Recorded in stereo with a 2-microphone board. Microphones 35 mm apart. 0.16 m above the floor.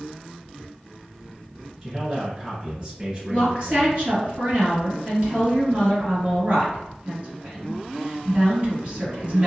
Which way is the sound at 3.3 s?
45° right (ahead or behind).